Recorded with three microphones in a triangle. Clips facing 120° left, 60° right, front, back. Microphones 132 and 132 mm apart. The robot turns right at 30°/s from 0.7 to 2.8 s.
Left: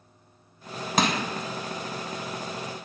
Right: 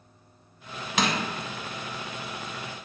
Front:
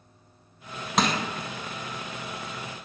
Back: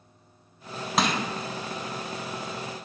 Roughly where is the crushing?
Left.